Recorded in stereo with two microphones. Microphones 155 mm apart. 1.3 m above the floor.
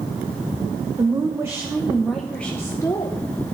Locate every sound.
1.0 s a woman speaking: 25° right (ahead or behind), 1.4 m; by 3.2 s 30° left (ahead or behind), 1.1 m